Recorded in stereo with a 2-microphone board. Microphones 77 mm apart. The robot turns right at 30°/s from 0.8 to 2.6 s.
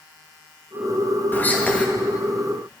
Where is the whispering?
25° left (ahead or behind), 0.8 m; by 1.9 s 15° left (ahead or behind), 0.8 m.